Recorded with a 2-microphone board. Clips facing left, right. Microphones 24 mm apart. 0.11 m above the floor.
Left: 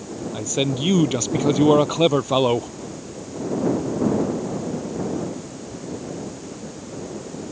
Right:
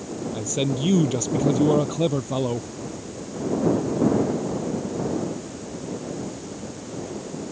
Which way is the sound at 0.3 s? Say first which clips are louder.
Left 3 dB; 15° left (ahead or behind).